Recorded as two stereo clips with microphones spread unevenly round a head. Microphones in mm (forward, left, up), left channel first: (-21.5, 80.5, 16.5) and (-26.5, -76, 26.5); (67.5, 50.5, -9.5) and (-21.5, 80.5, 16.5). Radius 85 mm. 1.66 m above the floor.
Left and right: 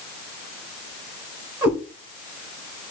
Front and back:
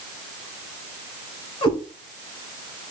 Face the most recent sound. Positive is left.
turn(degrees=-25)